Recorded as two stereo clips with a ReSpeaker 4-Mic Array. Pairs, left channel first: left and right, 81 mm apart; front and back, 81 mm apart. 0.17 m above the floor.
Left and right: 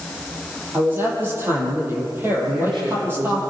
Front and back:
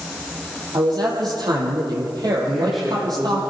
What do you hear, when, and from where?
0.7 s a man speaking: 150° right, 6.5 m
2.5 s a man speaking: 90° right, 7 m